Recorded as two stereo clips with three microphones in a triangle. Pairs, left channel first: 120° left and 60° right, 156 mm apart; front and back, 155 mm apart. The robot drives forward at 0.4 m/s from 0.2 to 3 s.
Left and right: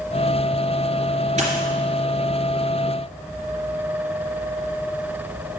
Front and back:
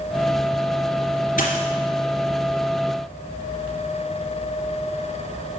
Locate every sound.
1.4 s a dropped coin: 25° right, 2.5 m